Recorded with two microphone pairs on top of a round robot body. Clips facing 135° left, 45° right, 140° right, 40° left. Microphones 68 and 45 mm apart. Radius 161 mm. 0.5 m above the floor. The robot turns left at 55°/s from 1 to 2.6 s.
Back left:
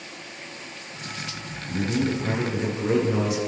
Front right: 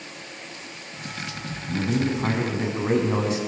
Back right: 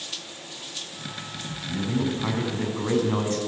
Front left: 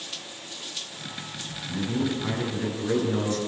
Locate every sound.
1.7 s a man speaking: 50° right, 6 m; by 3.4 s 100° right, 6 m